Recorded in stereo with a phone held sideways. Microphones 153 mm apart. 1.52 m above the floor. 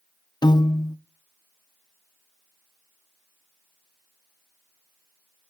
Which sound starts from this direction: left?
A piano, at 0.4 s.